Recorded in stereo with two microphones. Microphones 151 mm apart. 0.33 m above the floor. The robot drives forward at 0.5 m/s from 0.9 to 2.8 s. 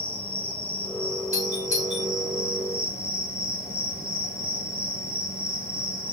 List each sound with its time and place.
0.0 s an insect: 40° right (ahead or behind), 1.2 m; by 6.1 s 85° right, 0.8 m
1.3 s a doorbell: 50° right (ahead or behind), 3.5 m; by 2.1 s 55° right (ahead or behind), 3 m